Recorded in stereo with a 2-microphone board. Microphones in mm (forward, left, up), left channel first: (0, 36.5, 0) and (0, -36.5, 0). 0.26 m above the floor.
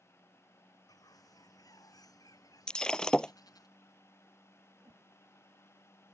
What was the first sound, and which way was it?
A bird, 55° left (ahead or behind).